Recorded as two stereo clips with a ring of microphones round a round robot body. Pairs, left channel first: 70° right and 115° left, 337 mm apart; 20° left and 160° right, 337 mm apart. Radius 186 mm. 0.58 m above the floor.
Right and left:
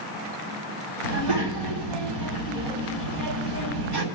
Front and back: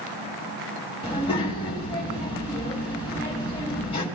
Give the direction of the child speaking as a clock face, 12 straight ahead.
9 o'clock.